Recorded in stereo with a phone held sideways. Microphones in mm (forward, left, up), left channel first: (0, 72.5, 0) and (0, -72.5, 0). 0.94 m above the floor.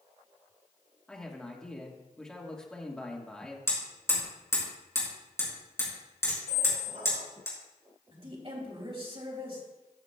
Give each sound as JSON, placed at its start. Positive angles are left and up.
{"t": 1.1, "sound": "a man speaking", "side_deg": 5, "distance_m": 1.5}
{"t": 3.7, "sound": "hammering", "side_deg": 20, "distance_m": 4.5}
{"t": 6.5, "sound": "a squeak", "side_deg": -75, "distance_m": 2.5}
{"t": 8.1, "sound": "a woman speaking", "side_deg": -45, "distance_m": 3.0}